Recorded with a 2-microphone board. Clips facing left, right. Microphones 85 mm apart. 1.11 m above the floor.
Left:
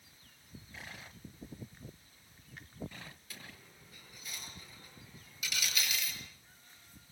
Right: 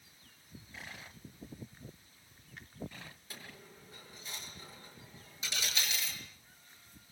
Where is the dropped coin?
30° right (ahead or behind), 7.5 m.